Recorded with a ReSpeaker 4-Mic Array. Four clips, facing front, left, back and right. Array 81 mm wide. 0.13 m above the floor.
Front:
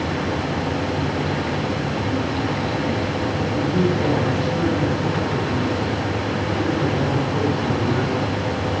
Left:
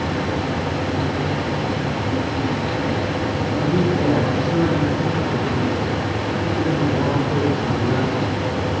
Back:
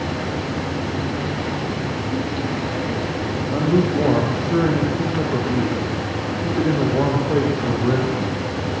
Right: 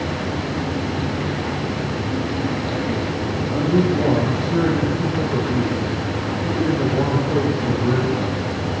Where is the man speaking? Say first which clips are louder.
Right 2 dB, back 4 dB; 175° right, 6.5 m.